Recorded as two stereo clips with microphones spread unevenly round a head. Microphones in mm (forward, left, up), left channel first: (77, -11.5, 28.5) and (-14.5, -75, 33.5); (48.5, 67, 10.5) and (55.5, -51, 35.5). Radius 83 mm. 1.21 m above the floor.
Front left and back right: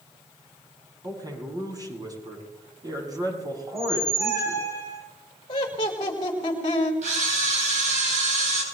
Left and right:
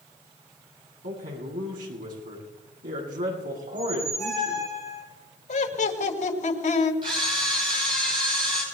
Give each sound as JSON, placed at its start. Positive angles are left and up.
{"t": 1.0, "sound": "a man speaking", "azimuth_deg": -90, "distance_m": 8.0}
{"t": 3.7, "sound": "a squeak", "azimuth_deg": -80, "distance_m": 7.5}
{"t": 5.5, "sound": "laughter", "azimuth_deg": 95, "distance_m": 5.0}
{"t": 7.0, "sound": "a camera shutter", "azimuth_deg": -150, "distance_m": 7.5}